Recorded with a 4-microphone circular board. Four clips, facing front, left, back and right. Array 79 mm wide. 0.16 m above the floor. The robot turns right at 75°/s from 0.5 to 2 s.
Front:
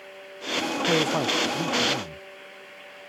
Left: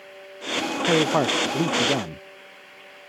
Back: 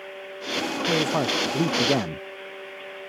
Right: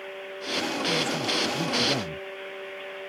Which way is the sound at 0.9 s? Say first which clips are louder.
Left 12 dB, even; 75° left.